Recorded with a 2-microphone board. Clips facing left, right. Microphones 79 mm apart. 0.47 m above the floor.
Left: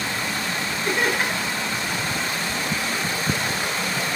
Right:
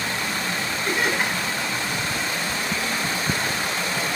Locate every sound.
0.8 s laughter: 5° right (ahead or behind), 8 m